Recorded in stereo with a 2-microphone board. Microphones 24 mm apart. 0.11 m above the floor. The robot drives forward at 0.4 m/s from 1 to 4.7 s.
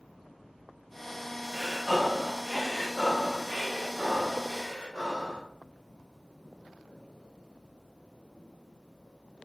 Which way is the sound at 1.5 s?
10° left (ahead or behind).